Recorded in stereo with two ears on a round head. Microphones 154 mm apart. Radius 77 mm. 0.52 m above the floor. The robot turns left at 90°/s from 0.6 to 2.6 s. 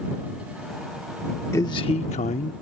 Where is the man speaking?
155° left; by 2.5 s 65° left.